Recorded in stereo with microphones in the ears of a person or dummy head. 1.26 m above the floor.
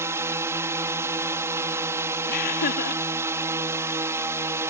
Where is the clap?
I don't hear a clap.